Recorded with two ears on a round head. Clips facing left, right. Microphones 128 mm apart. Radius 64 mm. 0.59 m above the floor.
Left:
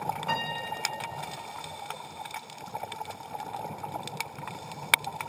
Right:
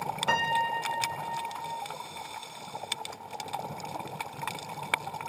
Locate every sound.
0.3 s a piano: 70° right (ahead or behind), 0.7 m